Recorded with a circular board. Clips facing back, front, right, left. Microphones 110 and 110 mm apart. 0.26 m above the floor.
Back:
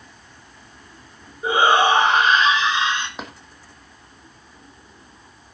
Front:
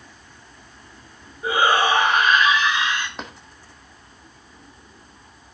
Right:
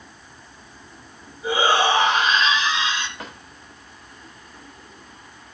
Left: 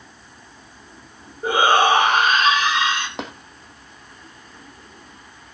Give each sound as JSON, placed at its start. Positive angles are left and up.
{"t": 1.4, "sound": "a shout", "azimuth_deg": 120, "distance_m": 4.0}
{"t": 3.2, "sound": "tapping", "azimuth_deg": 95, "distance_m": 2.0}